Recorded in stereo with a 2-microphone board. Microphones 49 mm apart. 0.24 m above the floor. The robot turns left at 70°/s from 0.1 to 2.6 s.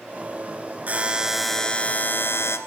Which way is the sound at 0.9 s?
140° right.